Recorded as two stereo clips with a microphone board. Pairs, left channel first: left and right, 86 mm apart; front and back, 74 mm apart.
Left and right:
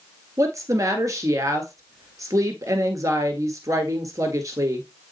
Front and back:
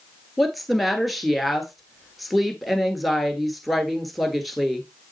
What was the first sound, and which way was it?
A woman speaking, 90° right.